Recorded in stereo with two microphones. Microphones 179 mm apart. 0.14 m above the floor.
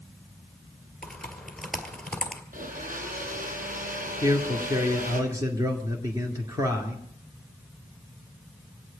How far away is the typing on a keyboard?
About 1.8 m.